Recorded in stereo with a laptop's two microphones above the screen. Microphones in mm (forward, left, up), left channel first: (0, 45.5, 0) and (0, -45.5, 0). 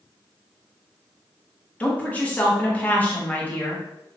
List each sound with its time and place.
1.8 s a woman speaking: 15° left (ahead or behind), 1.3 m